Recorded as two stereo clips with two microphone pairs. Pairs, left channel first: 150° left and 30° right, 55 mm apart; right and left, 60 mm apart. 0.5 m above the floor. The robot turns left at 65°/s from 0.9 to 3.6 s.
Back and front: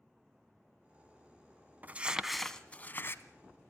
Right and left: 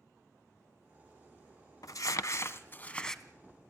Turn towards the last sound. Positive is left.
turn(degrees=160)